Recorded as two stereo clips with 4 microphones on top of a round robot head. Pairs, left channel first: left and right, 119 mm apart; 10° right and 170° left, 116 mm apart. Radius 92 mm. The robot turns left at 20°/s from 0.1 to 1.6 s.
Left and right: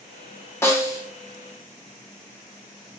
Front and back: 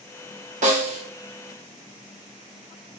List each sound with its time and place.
0.6 s a snare drum: 160° left, 1.3 m; by 1.1 s 150° left, 1.3 m